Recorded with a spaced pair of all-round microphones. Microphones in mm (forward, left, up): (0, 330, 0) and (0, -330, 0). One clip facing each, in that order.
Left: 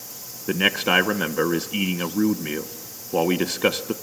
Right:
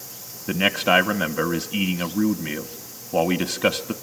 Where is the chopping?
No chopping in this recording.